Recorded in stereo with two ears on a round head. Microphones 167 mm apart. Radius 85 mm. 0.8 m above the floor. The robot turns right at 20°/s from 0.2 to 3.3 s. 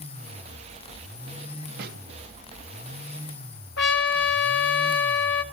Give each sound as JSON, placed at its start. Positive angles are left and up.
{"t": 1.8, "sound": "a snare drum", "side_deg": -60, "distance_m": 3.0}
{"t": 3.8, "sound": "a trumpet", "side_deg": 65, "distance_m": 1.3}